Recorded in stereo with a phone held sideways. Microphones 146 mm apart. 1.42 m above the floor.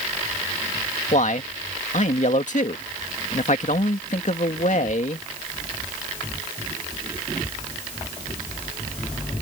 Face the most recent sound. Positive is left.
turn(degrees=55)  # may be behind; listen again after turning